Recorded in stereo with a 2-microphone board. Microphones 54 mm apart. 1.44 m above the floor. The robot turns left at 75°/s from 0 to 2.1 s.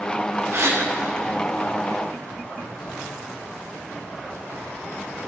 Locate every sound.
0.5 s a gasp: 55° right (ahead or behind), 0.9 m; by 0.8 s 60° right (ahead or behind), 0.9 m